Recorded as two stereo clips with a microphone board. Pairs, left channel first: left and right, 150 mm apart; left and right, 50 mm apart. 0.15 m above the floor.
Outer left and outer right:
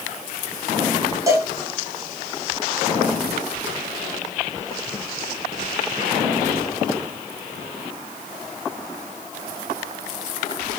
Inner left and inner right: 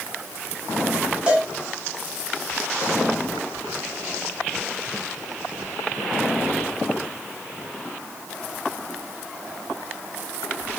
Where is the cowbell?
20° right (ahead or behind), 1.0 m.